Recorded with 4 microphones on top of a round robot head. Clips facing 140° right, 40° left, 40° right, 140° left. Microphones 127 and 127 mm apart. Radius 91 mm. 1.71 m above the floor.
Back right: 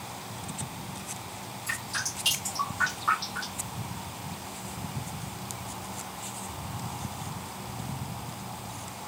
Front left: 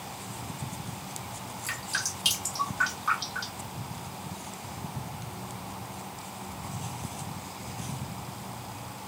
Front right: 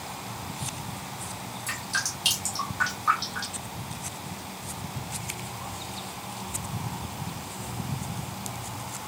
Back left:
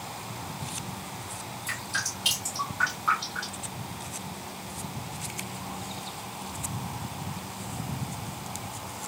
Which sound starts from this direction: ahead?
Dripping, at 1.7 s.